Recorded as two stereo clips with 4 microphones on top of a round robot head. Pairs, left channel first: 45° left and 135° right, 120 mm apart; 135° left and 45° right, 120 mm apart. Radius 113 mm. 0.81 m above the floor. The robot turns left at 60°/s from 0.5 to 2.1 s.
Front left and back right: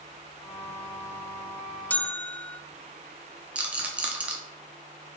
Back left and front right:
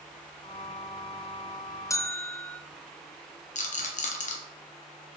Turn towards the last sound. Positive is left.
turn(degrees=145)